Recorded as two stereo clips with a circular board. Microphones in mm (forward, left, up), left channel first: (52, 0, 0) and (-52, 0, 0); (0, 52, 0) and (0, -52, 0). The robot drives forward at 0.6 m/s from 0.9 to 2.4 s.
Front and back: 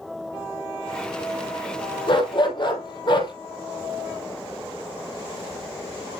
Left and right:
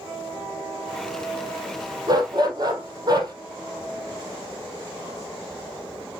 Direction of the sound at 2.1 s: 40° right.